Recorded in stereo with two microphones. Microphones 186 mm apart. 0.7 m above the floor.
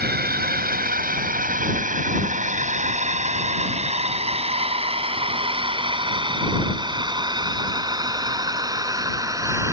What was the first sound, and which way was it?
A drone, 55° right (ahead or behind).